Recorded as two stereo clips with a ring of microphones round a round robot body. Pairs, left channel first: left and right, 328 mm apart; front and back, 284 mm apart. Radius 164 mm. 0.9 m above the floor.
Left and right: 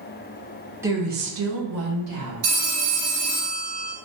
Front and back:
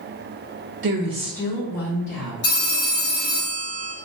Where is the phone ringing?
60° right, 1.5 m.